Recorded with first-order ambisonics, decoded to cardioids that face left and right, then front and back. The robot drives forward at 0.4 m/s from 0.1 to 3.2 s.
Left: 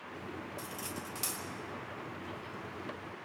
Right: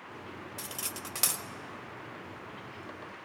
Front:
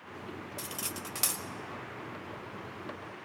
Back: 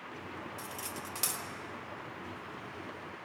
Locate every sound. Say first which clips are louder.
0.6 s cutlery clinking: right 2 dB, front 2 dB; 45° right, 0.9 m; by 1.4 s 75° right, 0.8 m